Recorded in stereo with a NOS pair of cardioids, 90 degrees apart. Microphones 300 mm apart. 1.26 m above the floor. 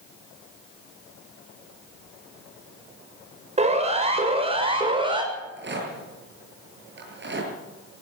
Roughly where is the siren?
Ahead.